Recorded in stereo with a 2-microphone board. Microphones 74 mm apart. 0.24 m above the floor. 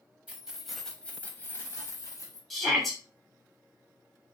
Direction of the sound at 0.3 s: 20° right (ahead or behind).